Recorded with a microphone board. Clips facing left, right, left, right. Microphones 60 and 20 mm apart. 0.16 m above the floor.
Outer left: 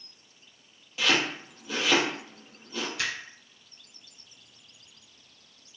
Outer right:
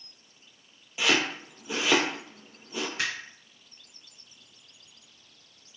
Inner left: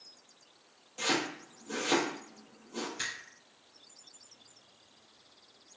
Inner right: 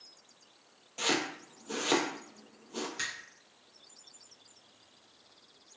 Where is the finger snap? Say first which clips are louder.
Outer right 1 dB, inner right 1 dB; 35° right (ahead or behind), 1.5 m.